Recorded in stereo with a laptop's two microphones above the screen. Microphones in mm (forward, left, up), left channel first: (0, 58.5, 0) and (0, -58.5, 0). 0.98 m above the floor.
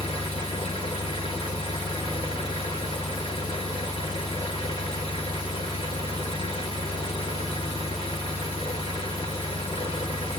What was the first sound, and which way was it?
An engine running, 50° left (ahead or behind).